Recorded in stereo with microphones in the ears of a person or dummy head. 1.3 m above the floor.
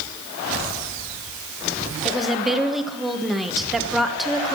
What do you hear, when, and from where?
2.0 s a woman speaking: centre (ahead or behind), 1.1 m